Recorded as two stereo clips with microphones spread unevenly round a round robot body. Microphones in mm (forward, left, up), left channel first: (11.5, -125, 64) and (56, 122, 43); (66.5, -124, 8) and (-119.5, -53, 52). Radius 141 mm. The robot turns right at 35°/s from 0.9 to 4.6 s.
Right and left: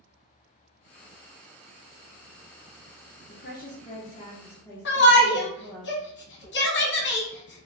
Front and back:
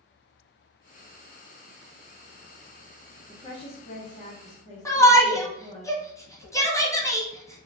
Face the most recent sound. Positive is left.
turn(degrees=-75)